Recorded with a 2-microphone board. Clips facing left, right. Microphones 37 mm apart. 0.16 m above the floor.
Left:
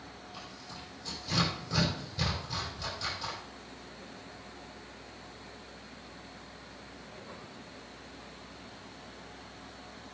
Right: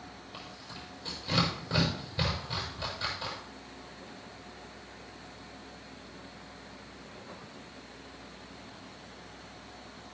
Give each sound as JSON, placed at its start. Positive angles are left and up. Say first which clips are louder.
{"t": 0.3, "sound": "tearing paper", "louder": "right 1 dB", "side_deg": -40, "distance_m": 7.0}